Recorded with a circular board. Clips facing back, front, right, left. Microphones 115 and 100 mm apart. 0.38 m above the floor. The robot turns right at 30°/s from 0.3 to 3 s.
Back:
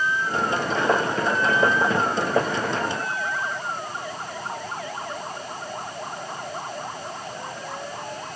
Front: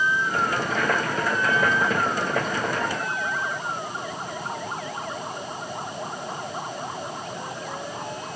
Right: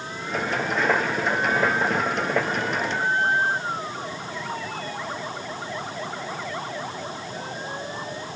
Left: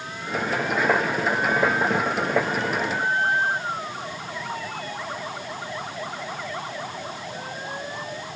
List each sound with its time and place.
Only background noise.